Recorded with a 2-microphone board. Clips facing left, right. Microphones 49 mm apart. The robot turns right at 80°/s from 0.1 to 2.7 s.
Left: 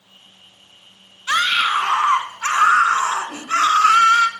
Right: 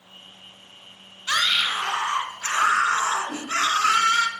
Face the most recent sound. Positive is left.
turn(degrees=-75)  # may be behind; listen again after turning